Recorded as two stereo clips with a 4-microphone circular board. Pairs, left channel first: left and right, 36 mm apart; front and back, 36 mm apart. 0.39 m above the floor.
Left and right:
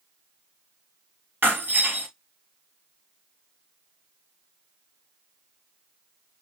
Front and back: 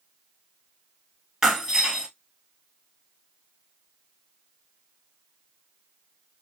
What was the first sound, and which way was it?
Breaking glass, 105° right.